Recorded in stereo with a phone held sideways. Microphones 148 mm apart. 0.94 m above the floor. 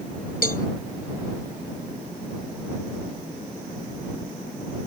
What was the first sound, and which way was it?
A cowbell, 80° left.